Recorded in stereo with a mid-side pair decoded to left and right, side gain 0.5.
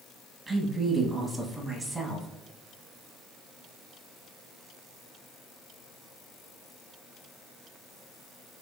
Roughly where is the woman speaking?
Ahead right.